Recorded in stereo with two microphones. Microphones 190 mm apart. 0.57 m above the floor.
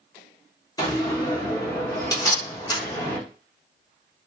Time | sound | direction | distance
0.8 | a door slam | 20° left (ahead or behind) | 0.8 m